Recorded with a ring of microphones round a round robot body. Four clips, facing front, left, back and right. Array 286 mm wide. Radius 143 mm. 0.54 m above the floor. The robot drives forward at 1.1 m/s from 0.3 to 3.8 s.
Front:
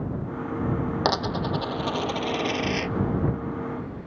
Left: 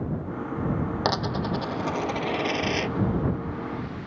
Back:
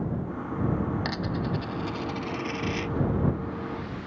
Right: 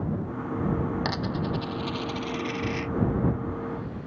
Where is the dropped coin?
30° left; by 2.9 s 65° left.